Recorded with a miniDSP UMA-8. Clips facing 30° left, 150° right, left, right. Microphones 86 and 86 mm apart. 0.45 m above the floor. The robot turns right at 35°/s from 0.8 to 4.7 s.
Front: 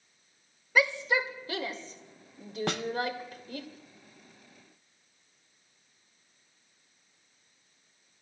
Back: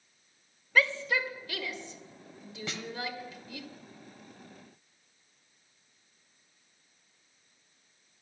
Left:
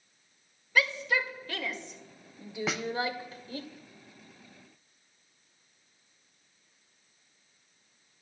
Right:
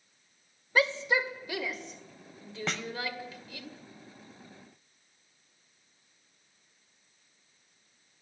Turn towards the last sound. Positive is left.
turn(degrees=75)